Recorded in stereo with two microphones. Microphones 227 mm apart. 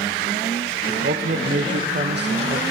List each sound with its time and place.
0.9 s a man speaking: 50° right (ahead or behind), 1.3 m